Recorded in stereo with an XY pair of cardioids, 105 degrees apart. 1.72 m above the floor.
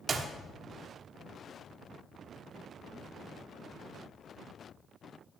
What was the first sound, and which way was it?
A clap, 40° right.